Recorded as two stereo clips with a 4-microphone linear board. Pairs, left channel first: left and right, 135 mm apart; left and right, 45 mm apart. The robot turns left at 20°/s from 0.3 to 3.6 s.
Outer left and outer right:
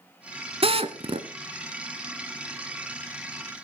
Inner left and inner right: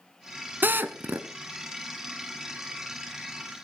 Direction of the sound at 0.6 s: 50° right (ahead or behind).